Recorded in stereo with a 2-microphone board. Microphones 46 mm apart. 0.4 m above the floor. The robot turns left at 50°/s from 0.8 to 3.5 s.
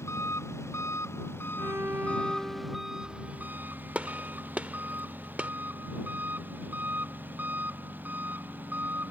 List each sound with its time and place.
0.0 s an engine running: 90° left; by 9.1 s 45° right
1.6 s a violin: 110° right; by 3.5 s 150° left
4.0 s a gunshot: 30° right (ahead or behind)